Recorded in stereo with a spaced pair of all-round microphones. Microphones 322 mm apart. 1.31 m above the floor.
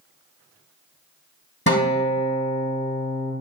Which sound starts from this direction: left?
A guitar, at 1.7 s.